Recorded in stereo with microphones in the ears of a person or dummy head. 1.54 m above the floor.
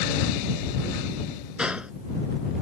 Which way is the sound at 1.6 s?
5° right (ahead or behind).